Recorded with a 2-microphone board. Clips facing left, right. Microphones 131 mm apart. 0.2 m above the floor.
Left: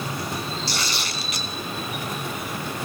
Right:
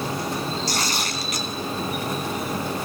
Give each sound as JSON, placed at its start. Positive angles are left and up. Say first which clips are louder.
{"t": 0.7, "sound": "tearing paper", "louder": "right 3 dB", "side_deg": -45, "distance_m": 1.4}